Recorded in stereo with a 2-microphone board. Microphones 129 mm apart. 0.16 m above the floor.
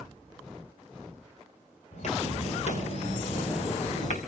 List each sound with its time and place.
1.9 s footsteps: 65° left (ahead or behind), 6.5 m; by 4.2 s 70° left (ahead or behind), 3.5 m